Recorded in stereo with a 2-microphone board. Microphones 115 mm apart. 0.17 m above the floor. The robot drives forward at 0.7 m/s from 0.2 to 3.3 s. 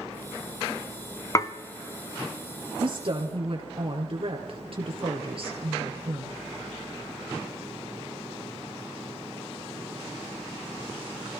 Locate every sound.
1.4 s dishes clattering: 30° left (ahead or behind), 0.9 m
2.8 s a woman speaking: 50° right (ahead or behind), 3 m; by 6.4 s 55° right (ahead or behind), 3 m